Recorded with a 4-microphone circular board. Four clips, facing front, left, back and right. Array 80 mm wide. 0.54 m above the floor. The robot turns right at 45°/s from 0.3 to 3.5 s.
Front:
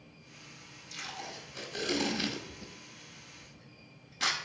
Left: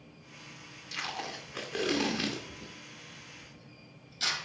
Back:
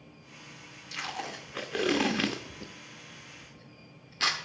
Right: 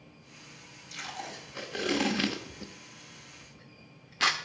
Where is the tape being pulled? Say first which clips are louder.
Left 2 dB, back 6 dB; 135° left, 0.8 m; by 4.4 s 105° right, 0.8 m.